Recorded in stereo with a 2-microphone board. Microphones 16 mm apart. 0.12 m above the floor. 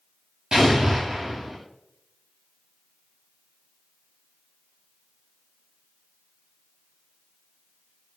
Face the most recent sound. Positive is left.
turn(degrees=-65)  # may be behind; listen again after turning